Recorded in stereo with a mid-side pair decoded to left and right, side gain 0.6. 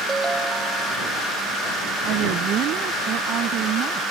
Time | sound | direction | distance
0.1 | a ringtone | 20° right | ?
2.0 | a woman speaking | 60° right | ?